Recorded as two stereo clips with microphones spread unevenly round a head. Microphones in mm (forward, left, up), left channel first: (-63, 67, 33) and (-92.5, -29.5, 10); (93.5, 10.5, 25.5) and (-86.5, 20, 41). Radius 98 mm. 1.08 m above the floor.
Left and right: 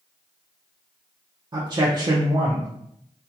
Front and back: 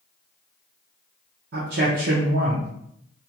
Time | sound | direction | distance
1.5 | a man speaking | 150° right | 0.6 m